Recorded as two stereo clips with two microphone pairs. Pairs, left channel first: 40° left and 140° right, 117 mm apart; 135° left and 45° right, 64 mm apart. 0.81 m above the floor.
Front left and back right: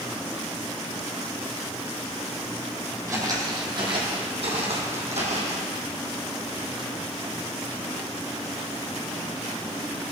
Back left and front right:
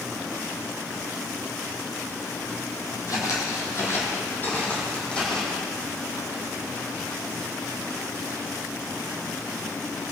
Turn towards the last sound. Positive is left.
turn(degrees=-145)